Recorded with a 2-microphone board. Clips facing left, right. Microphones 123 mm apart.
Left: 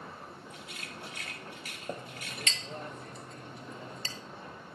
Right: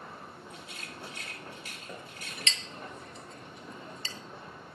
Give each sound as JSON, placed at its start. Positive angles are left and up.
{"t": 0.5, "sound": "a rattle", "side_deg": -30, "distance_m": 2.0}
{"t": 1.9, "sound": "a clink", "side_deg": 40, "distance_m": 1.0}